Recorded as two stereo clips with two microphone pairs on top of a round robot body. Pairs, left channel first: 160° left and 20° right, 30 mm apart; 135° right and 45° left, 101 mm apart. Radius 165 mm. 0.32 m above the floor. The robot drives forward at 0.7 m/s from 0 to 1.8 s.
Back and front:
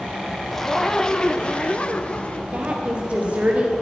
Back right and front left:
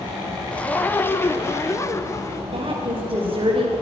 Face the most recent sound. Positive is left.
turn(degrees=20)